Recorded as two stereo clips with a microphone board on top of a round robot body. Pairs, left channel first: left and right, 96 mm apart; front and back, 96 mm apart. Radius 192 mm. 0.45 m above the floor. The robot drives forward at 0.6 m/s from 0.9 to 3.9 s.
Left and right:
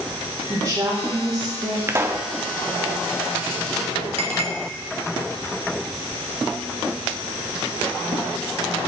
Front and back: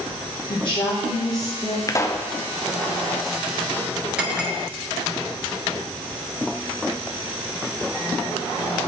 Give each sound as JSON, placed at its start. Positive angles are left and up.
{"t": 0.5, "sound": "a woman speaking", "azimuth_deg": -35, "distance_m": 1.6}
{"t": 1.9, "sound": "a pop", "azimuth_deg": -35, "distance_m": 0.9}
{"t": 4.2, "sound": "a clink", "azimuth_deg": -100, "distance_m": 1.4}